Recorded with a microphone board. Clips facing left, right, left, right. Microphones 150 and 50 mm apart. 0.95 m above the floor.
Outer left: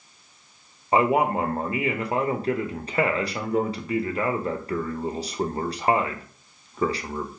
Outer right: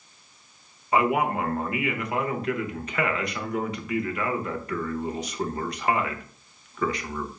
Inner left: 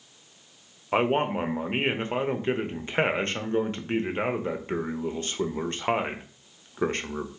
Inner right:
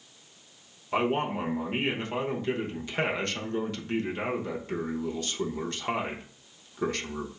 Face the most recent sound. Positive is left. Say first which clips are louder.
# outer left 2 dB, inner left 3 dB
turn(degrees=30)  # may be behind; listen again after turning